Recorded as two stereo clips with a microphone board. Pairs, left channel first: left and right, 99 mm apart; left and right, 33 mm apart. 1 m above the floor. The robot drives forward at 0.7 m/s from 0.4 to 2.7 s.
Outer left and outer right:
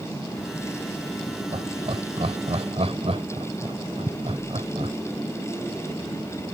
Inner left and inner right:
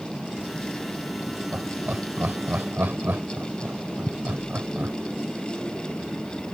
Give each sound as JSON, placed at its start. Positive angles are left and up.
{"t": 1.5, "sound": "laughter", "side_deg": -75}